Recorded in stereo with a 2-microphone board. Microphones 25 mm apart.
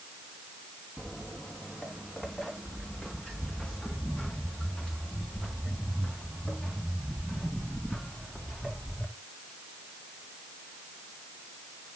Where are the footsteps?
10° left (ahead or behind), 2.5 m; by 9.0 s 25° left (ahead or behind), 6.5 m.